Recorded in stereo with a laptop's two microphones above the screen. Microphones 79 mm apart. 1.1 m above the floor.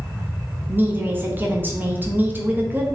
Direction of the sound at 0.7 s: 25° right (ahead or behind).